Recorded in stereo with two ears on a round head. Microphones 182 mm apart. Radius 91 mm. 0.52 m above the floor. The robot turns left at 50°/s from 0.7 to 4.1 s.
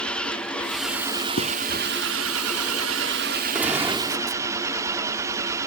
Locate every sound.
0.0 s an engine running: 5° left; by 5.7 s 165° right
1.4 s writing: 75° left (ahead or behind); by 1.5 s 80° left
3.5 s a gunshot: 5° right (ahead or behind); by 4.4 s 20° right (ahead or behind)